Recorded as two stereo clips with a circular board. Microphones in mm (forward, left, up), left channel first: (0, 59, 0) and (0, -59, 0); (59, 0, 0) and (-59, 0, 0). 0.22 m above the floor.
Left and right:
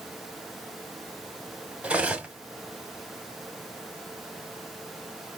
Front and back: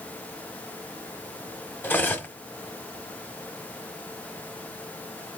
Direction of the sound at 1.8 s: 35° right.